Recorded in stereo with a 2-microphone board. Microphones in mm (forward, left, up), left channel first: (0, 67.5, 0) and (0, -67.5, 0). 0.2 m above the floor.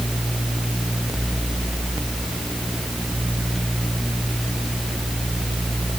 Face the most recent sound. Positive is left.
No sound to turn to.